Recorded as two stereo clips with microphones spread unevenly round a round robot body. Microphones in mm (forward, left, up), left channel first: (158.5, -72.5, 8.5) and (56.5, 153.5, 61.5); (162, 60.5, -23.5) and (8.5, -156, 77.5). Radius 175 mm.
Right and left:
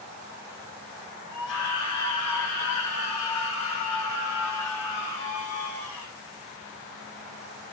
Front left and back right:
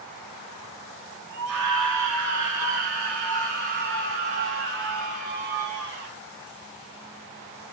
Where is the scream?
110° right, 2.5 m; by 6.1 s 70° right, 4.5 m.